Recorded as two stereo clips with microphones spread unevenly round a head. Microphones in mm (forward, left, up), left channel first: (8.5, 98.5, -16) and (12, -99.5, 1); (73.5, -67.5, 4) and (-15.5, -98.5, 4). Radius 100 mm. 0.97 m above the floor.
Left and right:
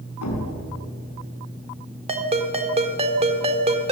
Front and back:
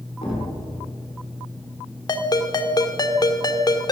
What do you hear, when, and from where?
0.2 s a thud: 85° left, 5 m
2.1 s a ringtone: 25° right, 2 m